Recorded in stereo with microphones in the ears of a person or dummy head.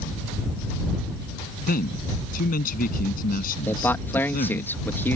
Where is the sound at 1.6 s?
45° left (ahead or behind).